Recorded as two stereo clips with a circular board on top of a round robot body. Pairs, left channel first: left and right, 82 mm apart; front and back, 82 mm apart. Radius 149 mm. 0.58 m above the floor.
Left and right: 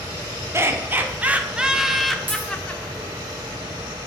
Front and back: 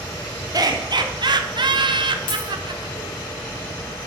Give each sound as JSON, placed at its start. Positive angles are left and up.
{"t": 0.5, "sound": "laughter", "azimuth_deg": -145, "distance_m": 2.0}
{"t": 2.3, "sound": "a dropped coin", "azimuth_deg": -20, "distance_m": 5.5}